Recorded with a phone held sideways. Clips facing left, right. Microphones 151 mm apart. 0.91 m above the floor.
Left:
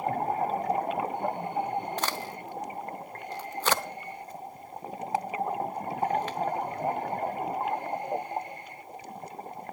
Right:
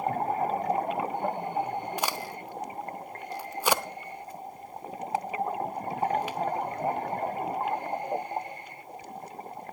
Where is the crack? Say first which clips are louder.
Right 1 dB; 10° right (ahead or behind), 0.6 m.